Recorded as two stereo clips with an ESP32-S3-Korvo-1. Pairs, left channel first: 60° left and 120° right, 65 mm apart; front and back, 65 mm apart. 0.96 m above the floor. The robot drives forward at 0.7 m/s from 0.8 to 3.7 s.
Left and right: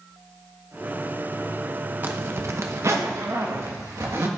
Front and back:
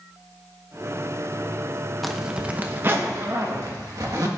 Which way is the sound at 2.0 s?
85° right.